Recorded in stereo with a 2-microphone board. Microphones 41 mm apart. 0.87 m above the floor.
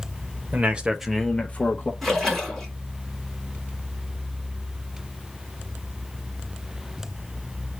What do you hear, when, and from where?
0.5 s a man speaking: 40° right (ahead or behind), 0.7 m; by 1.9 s 45° left (ahead or behind), 0.8 m
2.0 s a splash: 5° left (ahead or behind), 2 m